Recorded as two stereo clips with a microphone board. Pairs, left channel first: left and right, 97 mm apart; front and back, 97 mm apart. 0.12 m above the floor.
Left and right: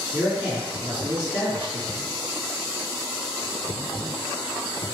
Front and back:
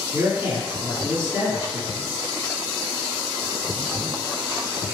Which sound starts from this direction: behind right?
A man speaking, at 0.1 s.